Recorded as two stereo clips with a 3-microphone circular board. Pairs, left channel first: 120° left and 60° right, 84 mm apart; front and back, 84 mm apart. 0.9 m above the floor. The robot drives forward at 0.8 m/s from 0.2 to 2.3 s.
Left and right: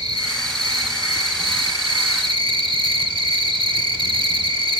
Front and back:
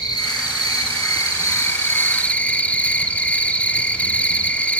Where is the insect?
30° right, 2.5 m; by 4.8 s 75° right, 1.3 m.